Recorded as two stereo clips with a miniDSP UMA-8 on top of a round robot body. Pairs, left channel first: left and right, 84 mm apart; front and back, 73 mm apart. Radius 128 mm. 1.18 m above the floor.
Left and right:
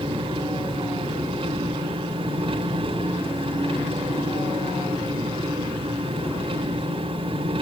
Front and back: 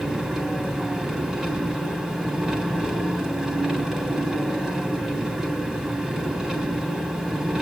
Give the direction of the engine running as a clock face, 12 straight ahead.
3 o'clock.